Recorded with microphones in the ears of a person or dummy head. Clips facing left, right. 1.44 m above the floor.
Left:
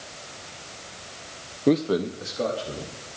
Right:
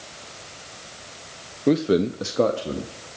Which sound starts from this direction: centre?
A man speaking, at 1.7 s.